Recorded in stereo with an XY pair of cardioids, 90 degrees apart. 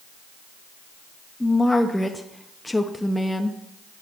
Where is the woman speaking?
10° left, 0.9 m.